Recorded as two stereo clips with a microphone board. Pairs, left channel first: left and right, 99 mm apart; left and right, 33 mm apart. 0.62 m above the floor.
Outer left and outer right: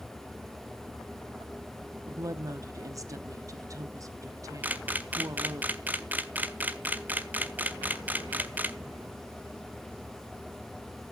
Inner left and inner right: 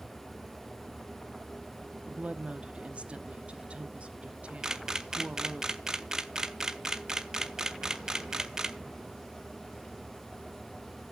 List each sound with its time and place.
2.1 s a woman speaking: 35° right (ahead or behind), 0.7 m
4.6 s a camera shutter: 20° right (ahead or behind), 0.6 m